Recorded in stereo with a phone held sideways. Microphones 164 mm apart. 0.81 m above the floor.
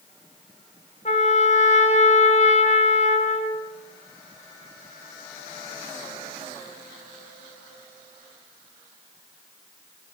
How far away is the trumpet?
About 4 m.